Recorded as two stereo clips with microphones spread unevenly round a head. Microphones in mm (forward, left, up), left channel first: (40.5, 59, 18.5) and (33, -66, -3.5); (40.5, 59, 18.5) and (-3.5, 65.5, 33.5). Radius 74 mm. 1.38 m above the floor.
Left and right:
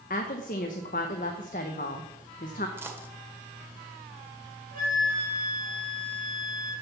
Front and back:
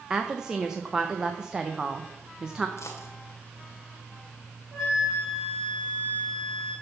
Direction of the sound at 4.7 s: 115° right.